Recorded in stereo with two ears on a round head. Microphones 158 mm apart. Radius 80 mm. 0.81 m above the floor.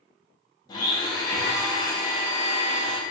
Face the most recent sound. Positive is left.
turn(degrees=25)  # may be behind; listen again after turning